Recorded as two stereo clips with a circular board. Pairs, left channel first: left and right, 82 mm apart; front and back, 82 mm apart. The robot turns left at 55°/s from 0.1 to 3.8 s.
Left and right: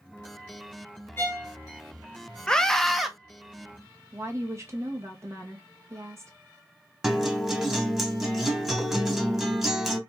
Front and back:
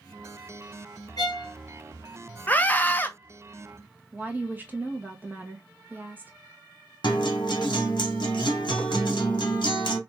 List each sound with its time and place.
1.2 s a violin: 30° left, 1.1 m; by 1.5 s 10° left, 1.1 m
2.5 s a scream: 25° left, 0.5 m; by 3.1 s 10° right, 0.5 m
4.1 s a woman speaking: 125° right, 0.9 m
7.0 s a guitar: 5° right, 0.8 m